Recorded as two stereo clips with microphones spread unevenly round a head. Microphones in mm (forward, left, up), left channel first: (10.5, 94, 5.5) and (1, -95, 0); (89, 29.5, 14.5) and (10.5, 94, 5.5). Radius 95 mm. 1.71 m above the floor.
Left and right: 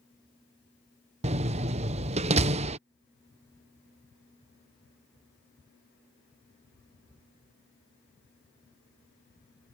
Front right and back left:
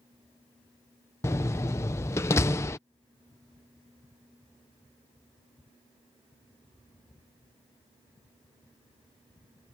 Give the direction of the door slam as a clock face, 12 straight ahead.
2 o'clock.